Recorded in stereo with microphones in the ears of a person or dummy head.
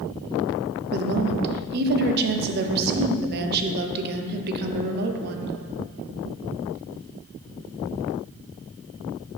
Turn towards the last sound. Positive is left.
turn(degrees=-55)  # may be behind; listen again after turning